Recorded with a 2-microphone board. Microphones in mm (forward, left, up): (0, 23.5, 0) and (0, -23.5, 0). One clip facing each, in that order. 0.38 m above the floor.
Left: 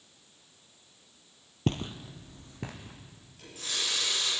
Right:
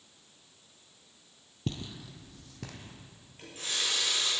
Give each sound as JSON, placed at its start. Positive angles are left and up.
{"t": 1.7, "sound": "footsteps", "side_deg": 50, "distance_m": 0.6}
{"t": 3.4, "sound": "a running tap", "side_deg": -35, "distance_m": 6.0}